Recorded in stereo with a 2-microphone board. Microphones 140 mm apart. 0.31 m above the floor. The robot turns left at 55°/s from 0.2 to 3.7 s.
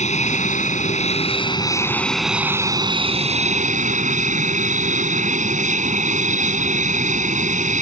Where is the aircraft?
110° left; by 7.8 s 80° right.